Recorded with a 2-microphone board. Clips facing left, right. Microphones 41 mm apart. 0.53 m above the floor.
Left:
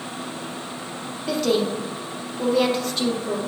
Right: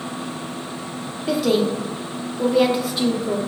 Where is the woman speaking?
10° right (ahead or behind), 0.6 m.